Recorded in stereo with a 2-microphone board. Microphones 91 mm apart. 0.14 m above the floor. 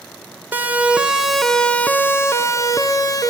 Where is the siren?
20° right (ahead or behind), 2.5 m; by 3.3 s 40° left (ahead or behind), 3 m.